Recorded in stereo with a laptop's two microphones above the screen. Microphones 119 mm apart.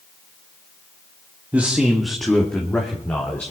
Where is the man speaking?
15° right (ahead or behind), 1.5 m; by 3.5 s 15° left (ahead or behind), 3 m.